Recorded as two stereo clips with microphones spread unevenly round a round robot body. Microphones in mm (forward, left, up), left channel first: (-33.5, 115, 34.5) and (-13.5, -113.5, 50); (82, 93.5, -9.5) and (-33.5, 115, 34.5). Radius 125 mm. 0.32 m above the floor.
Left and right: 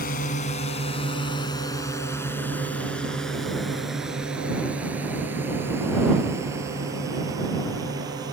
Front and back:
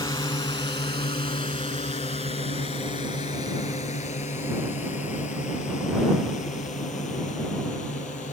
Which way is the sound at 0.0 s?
40° left.